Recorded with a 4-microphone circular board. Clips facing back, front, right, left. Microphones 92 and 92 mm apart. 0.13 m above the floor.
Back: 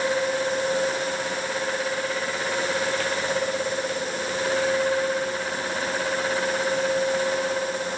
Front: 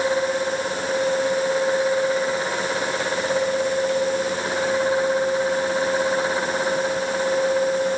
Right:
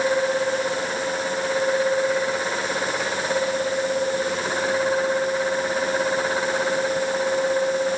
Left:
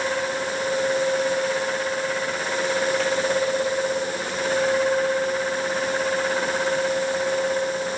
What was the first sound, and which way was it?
Only background noise.